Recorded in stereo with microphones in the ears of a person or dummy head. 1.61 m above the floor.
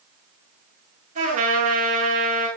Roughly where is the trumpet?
Right.